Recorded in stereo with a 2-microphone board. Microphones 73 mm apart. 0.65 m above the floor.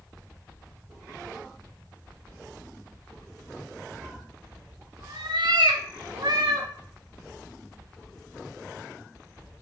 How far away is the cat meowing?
About 0.8 m.